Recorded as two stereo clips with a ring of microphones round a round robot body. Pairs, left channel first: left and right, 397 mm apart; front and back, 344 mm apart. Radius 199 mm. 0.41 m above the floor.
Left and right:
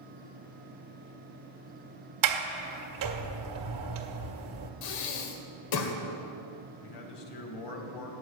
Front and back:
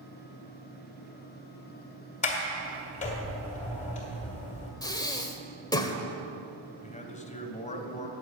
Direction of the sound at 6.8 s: 70° left.